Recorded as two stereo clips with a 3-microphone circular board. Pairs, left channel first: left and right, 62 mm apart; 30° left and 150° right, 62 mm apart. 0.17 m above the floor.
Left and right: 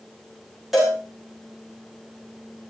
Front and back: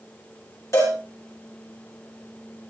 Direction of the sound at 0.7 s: 5° right.